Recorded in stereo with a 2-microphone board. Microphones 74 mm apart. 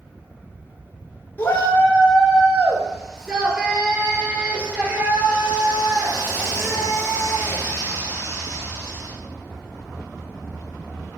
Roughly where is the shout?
Left.